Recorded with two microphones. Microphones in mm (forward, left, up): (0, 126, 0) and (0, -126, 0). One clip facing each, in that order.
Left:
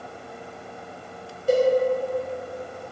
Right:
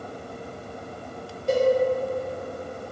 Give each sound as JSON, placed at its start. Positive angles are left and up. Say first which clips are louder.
{"t": 1.5, "sound": "a cowbell", "louder": "left 2 dB", "side_deg": 5, "distance_m": 0.7}